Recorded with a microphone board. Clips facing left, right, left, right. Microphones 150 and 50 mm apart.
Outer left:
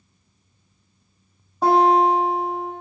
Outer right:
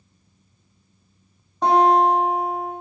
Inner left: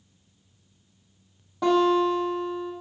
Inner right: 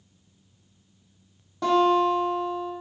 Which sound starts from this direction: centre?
A guitar, at 1.6 s.